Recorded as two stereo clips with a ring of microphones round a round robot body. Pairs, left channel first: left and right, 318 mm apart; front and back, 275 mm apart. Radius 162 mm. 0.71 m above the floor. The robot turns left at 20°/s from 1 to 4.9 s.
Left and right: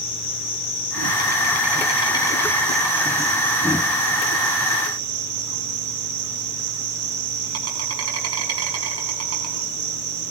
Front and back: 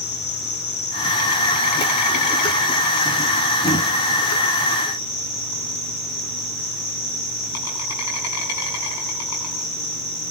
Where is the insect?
35° left, 8.5 m; by 10.3 s 45° right, 8.5 m.